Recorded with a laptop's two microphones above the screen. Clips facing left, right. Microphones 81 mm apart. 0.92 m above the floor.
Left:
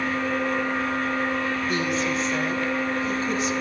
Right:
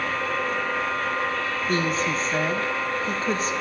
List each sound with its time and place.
0.0 s a machine running: 75° right (ahead or behind), 3 m
1.7 s a woman speaking: 40° right (ahead or behind), 1.1 m